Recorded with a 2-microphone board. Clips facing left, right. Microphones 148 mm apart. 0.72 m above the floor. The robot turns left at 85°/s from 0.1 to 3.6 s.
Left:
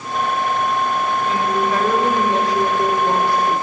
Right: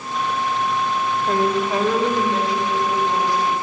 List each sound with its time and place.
1.3 s a woman speaking: 120° right, 3 m; by 3.6 s 40° left, 3 m